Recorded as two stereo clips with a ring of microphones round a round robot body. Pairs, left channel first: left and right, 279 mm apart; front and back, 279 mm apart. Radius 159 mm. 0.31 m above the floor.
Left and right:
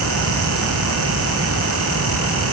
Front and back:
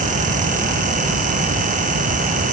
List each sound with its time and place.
Only background noise.